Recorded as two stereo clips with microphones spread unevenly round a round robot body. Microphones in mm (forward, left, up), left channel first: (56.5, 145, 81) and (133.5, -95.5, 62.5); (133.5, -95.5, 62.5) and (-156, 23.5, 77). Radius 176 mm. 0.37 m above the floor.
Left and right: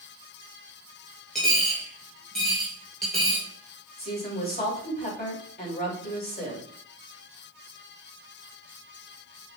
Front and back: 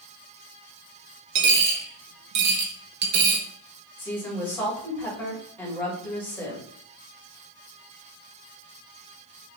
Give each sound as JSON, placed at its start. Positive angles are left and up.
{"t": 1.4, "sound": "a dropped coin", "azimuth_deg": -165, "distance_m": 1.1}
{"t": 4.0, "sound": "a woman speaking", "azimuth_deg": 60, "distance_m": 2.5}